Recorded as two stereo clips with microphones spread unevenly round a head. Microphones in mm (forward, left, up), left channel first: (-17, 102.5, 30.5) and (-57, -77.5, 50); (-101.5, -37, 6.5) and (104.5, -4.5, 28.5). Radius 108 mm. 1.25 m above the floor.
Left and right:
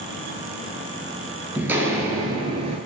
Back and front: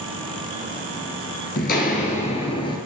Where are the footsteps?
170° right, 1.4 m; by 2.8 s 105° right, 1.4 m.